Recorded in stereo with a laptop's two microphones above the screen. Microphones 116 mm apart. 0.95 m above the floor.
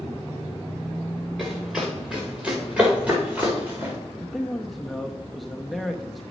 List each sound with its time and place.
1.4 s running footsteps: centre (ahead or behind), 5.5 m; by 4.0 s 15° right (ahead or behind), 6 m
4.2 s a man speaking: centre (ahead or behind), 0.8 m